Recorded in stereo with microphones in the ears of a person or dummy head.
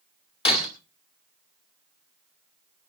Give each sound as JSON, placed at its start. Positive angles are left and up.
{"t": 0.5, "sound": "breaking glass", "side_deg": 30, "distance_m": 2.5}